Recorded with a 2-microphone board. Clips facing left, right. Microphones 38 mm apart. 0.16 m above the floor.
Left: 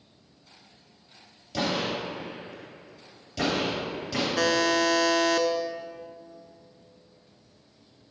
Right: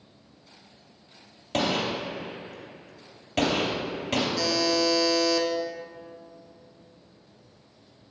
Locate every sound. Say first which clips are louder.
1.5 s a gunshot: right 2 dB; 55° right (ahead or behind), 3 m
4.4 s a buzzer: left 5 dB; 55° left (ahead or behind), 0.7 m